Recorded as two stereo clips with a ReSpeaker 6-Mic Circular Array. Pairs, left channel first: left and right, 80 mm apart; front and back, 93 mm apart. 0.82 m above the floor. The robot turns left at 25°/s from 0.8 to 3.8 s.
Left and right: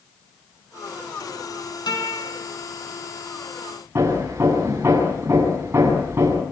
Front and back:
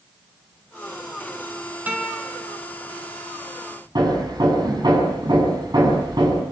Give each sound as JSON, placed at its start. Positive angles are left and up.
{"t": 1.9, "sound": "a guitar", "azimuth_deg": 110, "distance_m": 6.5}
{"t": 4.0, "sound": "hammering", "azimuth_deg": -145, "distance_m": 7.0}